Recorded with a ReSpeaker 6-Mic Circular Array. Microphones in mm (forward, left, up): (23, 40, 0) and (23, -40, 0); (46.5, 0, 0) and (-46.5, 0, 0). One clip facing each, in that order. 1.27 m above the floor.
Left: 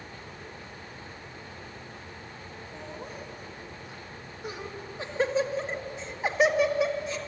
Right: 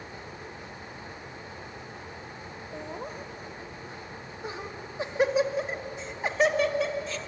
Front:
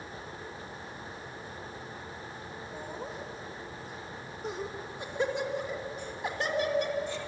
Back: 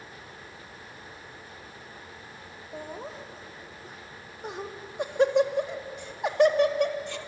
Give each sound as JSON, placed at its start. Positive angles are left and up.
{"t": 2.7, "sound": "laughter", "azimuth_deg": -130, "distance_m": 2.5}